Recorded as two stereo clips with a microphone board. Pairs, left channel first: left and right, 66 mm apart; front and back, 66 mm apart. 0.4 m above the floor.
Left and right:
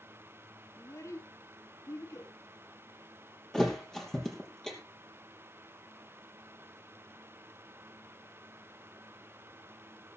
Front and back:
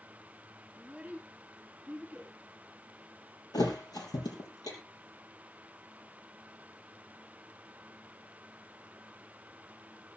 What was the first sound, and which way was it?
A child speaking, 110° left.